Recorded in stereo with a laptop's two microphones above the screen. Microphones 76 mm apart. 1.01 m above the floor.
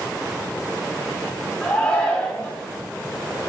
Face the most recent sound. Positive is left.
turn(degrees=15)  # may be behind; listen again after turning